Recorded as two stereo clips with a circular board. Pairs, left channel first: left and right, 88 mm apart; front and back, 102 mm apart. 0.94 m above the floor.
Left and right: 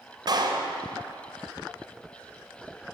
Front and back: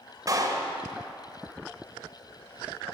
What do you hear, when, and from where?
0.3 s a clap: 125° right, 3 m